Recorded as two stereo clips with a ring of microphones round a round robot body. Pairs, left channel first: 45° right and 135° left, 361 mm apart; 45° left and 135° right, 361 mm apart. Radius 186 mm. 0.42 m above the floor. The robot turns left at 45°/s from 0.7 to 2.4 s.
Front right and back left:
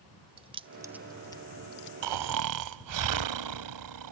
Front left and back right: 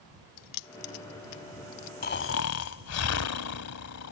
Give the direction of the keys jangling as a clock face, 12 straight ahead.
10 o'clock.